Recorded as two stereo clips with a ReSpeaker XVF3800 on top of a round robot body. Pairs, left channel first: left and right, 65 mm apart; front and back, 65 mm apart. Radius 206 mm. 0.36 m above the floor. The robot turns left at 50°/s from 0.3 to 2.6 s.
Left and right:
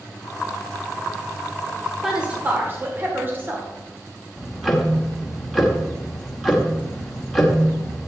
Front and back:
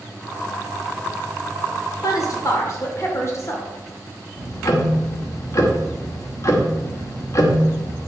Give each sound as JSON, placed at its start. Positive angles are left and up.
{"t": 2.0, "sound": "a woman speaking", "azimuth_deg": -5, "distance_m": 2.5}
{"t": 4.4, "sound": "ticking", "azimuth_deg": 0, "distance_m": 2.0}